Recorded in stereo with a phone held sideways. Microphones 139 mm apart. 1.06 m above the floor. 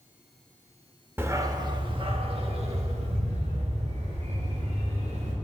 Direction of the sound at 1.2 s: 15° right (ahead or behind).